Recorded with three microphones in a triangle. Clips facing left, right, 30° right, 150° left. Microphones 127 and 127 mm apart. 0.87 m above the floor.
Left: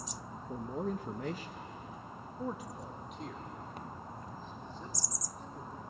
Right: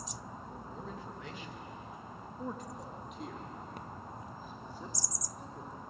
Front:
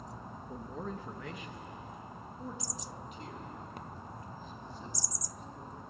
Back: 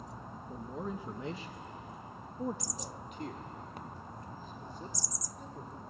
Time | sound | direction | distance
0.5 | a man speaking | 55° left | 0.9 m